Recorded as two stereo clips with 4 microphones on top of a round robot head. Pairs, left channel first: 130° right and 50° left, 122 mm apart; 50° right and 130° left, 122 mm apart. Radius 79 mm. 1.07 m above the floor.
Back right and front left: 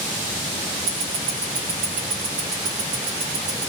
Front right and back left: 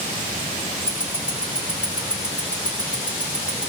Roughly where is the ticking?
Ahead left.